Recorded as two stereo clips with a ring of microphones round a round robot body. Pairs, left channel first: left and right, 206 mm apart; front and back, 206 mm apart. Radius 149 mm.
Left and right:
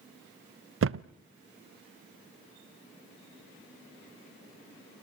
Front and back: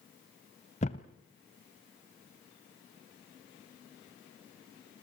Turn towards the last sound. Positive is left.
turn(degrees=-65)